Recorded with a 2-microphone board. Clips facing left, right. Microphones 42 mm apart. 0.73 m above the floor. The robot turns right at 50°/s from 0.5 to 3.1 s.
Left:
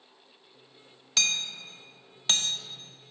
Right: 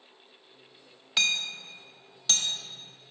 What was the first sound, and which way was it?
Hammering, 15° right (ahead or behind).